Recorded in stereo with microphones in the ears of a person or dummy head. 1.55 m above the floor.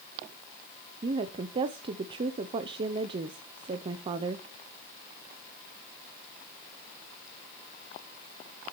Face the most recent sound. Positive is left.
turn(degrees=-30)  # may be behind; listen again after turning